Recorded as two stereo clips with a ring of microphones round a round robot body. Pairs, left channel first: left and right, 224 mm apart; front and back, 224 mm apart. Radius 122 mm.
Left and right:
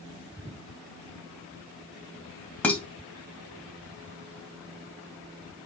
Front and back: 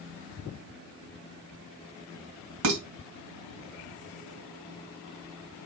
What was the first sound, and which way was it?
Dishes clattering, 175° left.